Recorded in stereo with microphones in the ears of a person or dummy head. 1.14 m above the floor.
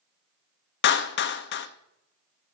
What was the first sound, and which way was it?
A clap, 50° left (ahead or behind).